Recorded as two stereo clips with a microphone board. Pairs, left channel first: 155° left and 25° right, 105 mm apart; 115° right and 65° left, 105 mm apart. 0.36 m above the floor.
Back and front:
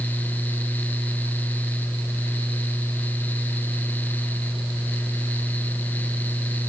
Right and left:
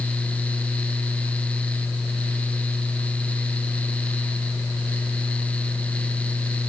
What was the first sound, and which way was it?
Only background noise.